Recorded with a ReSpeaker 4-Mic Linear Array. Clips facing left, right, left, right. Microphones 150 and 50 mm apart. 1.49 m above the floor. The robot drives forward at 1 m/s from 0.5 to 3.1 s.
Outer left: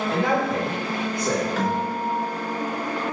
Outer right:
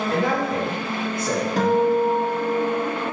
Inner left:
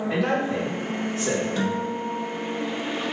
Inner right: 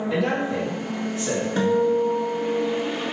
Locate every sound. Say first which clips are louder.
0.1 s a man speaking: even, even; 35° left (ahead or behind), 3 m; by 1.5 s 50° left (ahead or behind), 2 m
1.6 s a guitar: outer right 7 dB, inner right 7 dB; 40° right (ahead or behind), 1.3 m; by 2.9 s 20° right (ahead or behind), 2.5 m